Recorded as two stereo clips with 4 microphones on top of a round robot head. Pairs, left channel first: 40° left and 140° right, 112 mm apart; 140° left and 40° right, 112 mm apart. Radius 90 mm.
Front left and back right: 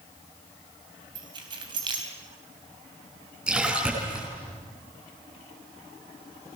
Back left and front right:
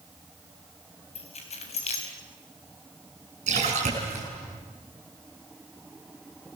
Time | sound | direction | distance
1.1 | keys jangling | 170° left | 4 m
3.5 | a splash | 60° right | 8.5 m